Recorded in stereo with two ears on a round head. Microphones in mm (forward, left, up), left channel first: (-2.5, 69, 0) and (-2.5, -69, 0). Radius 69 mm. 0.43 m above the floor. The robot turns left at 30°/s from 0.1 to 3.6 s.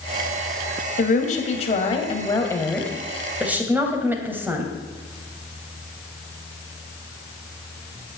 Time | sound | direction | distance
1.0 | a woman speaking | 65° left | 2.5 m